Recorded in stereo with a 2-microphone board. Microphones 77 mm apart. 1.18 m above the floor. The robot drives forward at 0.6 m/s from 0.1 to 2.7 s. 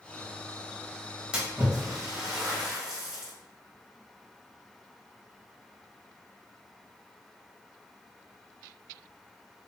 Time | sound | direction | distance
1.3 | a splash | 15° right (ahead or behind) | 1.3 m